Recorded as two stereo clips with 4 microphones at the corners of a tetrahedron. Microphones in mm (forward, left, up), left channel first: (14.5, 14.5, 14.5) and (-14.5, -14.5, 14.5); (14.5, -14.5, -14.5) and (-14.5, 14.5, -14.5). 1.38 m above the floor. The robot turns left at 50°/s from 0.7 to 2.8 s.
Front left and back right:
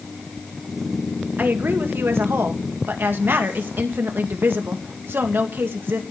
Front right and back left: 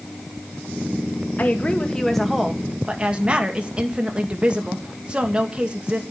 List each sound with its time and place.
1.4 s a woman speaking: 90° right, 2.0 m; by 6.0 s 160° right, 2.0 m